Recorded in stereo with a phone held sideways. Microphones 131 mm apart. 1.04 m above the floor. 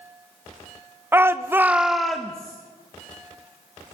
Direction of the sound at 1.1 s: 15° right (ahead or behind).